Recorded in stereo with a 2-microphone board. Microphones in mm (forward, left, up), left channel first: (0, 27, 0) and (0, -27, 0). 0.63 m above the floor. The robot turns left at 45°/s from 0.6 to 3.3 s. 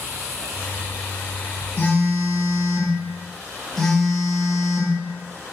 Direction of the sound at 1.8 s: 80° left.